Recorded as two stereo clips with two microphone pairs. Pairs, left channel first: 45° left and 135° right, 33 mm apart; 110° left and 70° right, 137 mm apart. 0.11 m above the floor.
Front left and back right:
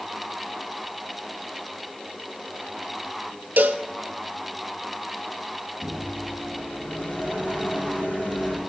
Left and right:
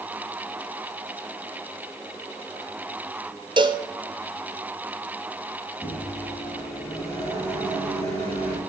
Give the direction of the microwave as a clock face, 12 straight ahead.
10 o'clock.